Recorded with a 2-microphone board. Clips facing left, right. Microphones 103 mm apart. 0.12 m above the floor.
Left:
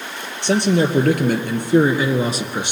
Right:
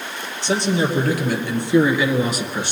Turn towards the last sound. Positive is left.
turn(degrees=15)  # may be behind; listen again after turning